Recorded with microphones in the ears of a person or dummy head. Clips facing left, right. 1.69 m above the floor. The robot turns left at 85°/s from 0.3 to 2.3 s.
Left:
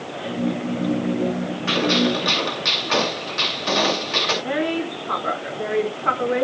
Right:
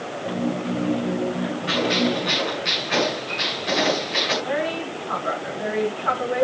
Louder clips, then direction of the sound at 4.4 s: Left 2 dB; 50° left (ahead or behind).